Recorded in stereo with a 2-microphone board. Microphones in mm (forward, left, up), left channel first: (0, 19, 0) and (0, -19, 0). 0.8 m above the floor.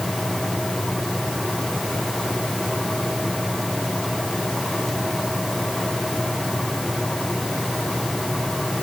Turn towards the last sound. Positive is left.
No sound to turn to.